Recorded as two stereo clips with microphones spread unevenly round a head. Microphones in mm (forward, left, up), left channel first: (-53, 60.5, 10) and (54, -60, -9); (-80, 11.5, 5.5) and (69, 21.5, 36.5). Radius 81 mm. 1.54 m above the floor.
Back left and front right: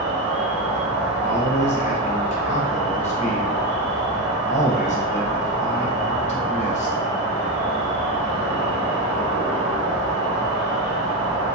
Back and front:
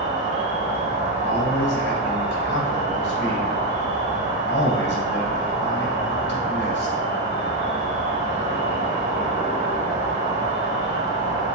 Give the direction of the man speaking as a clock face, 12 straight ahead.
6 o'clock.